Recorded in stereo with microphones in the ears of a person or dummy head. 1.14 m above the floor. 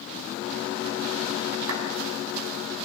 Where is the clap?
85° right, 7 m.